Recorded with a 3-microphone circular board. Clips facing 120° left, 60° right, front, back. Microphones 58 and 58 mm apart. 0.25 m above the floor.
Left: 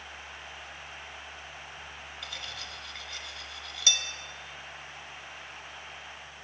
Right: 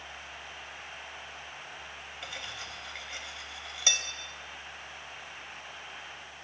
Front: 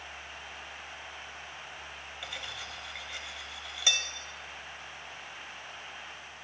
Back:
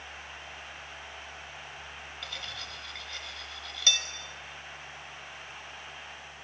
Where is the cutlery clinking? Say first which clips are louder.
Right 1 dB, front 1 dB; 55° right, 0.5 m.